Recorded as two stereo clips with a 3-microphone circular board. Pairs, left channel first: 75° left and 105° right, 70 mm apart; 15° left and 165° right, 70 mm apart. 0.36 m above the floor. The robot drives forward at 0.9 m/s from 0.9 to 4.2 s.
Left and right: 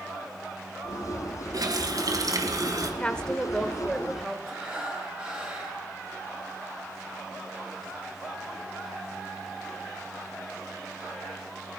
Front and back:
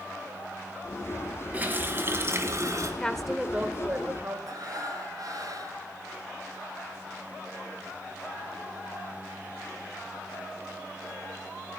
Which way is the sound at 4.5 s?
Straight behind.